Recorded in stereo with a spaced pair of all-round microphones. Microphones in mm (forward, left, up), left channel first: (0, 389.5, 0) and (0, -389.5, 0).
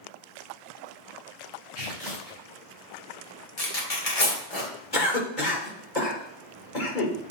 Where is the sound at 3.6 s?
50° left (ahead or behind), 2 m.